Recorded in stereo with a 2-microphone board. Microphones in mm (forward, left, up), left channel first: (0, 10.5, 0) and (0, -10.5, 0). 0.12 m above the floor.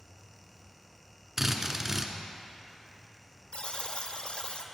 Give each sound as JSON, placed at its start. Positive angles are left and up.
{"t": 1.4, "sound": "a drill", "side_deg": -15, "distance_m": 0.8}
{"t": 3.5, "sound": "a buzzer", "side_deg": 60, "distance_m": 0.7}